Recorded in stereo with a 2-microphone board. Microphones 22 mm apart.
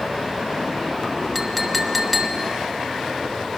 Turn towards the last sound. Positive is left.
turn(degrees=-10)  # may be behind; listen again after turning